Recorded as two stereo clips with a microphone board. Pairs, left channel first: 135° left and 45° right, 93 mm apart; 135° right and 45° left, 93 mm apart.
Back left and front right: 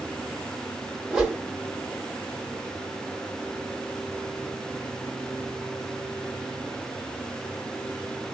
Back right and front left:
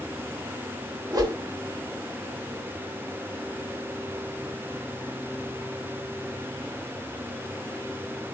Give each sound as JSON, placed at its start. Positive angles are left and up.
{"t": 1.1, "sound": "a whoosh", "azimuth_deg": 35, "distance_m": 1.0}